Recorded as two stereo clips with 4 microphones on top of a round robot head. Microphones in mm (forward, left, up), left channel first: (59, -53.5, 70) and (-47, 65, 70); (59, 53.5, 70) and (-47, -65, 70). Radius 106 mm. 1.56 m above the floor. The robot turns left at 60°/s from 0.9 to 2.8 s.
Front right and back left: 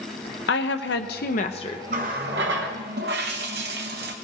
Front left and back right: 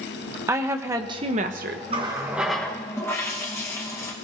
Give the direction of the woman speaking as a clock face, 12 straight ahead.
2 o'clock.